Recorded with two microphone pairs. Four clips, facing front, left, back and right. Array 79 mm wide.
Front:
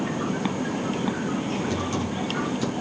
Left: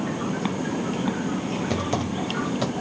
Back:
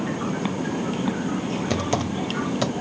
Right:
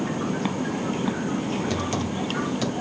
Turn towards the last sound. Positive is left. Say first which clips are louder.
# left 1 dB, back 3 dB
turn(degrees=160)